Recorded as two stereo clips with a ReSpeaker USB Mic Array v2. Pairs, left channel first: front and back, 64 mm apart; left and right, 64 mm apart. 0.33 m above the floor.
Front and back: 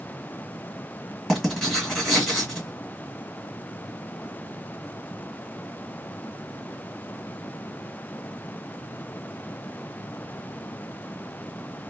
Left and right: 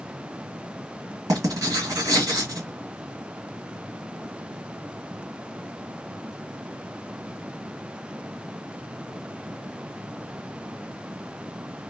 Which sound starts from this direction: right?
Writing, at 1.3 s.